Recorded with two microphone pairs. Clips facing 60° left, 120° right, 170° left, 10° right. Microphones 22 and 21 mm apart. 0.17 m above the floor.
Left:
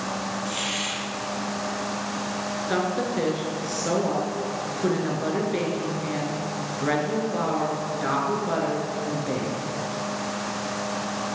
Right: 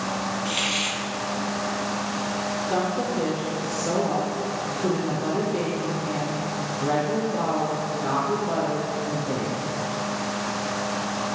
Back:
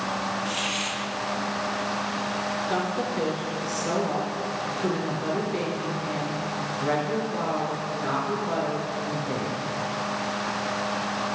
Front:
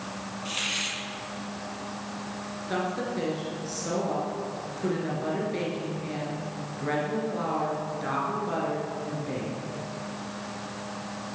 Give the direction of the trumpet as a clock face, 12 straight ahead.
I don't hear a trumpet.